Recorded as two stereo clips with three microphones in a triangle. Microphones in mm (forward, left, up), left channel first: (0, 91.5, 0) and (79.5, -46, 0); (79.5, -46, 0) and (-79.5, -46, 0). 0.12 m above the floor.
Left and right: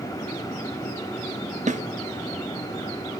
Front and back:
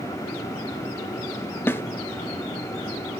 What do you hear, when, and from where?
1.7 s a snare drum: 75° right, 0.6 m